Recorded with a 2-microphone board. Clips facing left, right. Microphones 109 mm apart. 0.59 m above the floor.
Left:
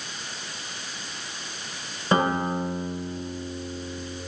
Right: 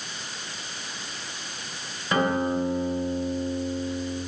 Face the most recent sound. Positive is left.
turn(degrees=30)  # may be behind; listen again after turning